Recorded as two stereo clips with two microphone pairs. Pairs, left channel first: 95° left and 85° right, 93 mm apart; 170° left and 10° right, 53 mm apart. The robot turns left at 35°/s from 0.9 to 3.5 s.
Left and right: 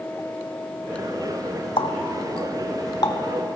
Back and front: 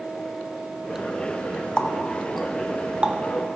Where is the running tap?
100° left, 0.8 m; by 3.2 s 50° left, 0.8 m.